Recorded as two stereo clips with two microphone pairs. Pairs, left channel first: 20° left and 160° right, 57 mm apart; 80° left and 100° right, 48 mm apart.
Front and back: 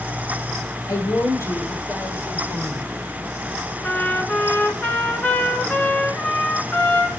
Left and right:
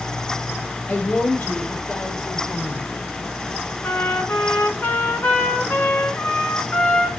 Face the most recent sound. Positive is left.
turn(degrees=70)